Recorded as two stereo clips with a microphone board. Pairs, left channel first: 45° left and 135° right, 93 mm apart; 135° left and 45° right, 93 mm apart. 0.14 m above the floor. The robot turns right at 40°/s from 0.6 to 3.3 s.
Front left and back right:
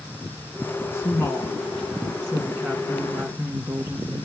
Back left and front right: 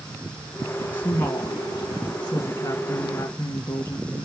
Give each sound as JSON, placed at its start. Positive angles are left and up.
{"t": 0.9, "sound": "a woman speaking", "azimuth_deg": 80, "distance_m": 1.6}